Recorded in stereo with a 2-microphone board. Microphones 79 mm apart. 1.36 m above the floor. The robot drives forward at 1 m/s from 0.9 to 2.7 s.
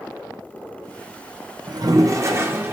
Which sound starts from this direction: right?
A toilet flushing, at 1.7 s.